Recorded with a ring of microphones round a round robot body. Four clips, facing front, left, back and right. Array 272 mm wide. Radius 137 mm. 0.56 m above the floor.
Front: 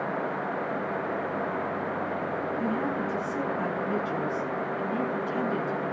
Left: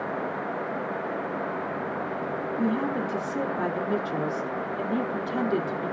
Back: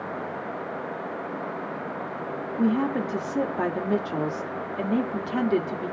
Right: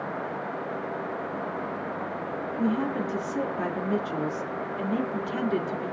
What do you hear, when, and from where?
2.6 s a woman speaking: 170° left, 1.6 m